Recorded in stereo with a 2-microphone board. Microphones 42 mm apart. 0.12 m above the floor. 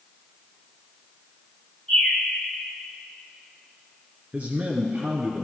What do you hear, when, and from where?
1.9 s a bird: 15° left (ahead or behind), 3.5 m
4.3 s a man speaking: 40° right (ahead or behind), 1.4 m